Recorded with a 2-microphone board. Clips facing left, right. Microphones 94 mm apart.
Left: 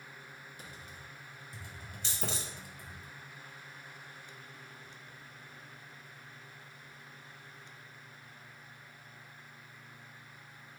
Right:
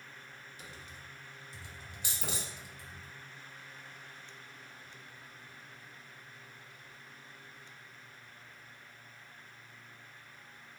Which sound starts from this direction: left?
Typing on a keyboard, at 0.6 s.